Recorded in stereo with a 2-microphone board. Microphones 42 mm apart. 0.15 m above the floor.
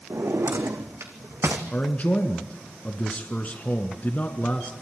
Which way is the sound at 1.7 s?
35° left (ahead or behind).